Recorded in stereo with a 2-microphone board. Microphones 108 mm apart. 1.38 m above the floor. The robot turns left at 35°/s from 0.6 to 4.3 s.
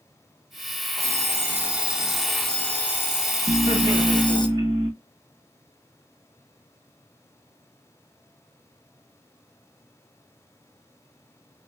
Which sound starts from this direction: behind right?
An alarm clock, at 1.0 s.